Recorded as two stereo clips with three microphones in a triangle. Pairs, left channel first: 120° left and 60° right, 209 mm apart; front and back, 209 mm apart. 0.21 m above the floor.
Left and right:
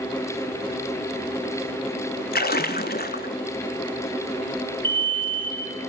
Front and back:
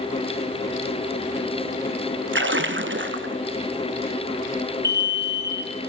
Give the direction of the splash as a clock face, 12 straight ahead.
7 o'clock.